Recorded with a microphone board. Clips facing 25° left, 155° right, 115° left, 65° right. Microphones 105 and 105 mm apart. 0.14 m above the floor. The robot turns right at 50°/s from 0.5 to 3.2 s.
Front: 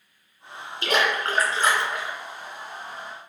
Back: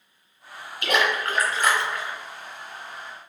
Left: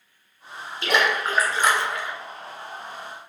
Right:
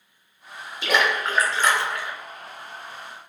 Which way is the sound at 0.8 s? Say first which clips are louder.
Even, even; 20° left.